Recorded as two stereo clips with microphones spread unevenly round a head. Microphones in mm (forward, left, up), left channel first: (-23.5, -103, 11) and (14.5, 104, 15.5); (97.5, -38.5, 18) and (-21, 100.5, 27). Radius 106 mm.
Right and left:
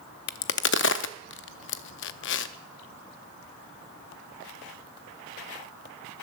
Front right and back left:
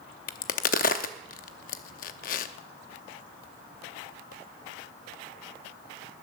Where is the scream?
I don't hear a scream.